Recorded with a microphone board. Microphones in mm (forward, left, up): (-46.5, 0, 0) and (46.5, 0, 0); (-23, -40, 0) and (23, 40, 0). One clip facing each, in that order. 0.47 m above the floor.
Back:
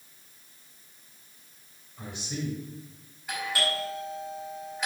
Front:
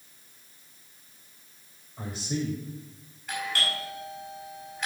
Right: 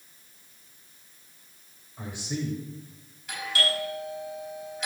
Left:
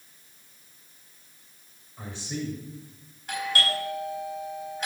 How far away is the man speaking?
About 2 m.